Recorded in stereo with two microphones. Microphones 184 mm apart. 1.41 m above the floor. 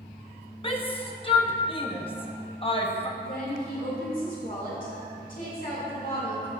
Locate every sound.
0.6 s a shout: 30° left (ahead or behind), 1.0 m
3.2 s a woman speaking: 50° left (ahead or behind), 2.5 m